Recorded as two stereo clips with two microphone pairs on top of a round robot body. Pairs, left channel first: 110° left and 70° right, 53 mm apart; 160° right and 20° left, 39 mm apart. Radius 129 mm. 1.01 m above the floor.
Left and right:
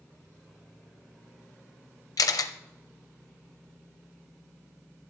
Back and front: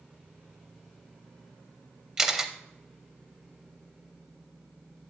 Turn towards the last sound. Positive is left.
turn(degrees=100)